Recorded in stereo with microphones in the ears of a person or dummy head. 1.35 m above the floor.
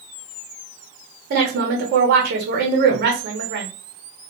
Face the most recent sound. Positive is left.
turn(degrees=-50)  # may be behind; listen again after turning